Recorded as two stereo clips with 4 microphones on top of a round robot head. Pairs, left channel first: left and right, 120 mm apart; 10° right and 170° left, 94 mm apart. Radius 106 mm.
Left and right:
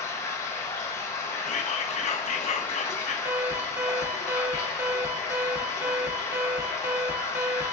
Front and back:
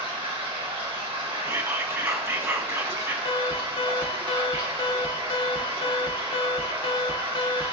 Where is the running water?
155° left, 1.1 m.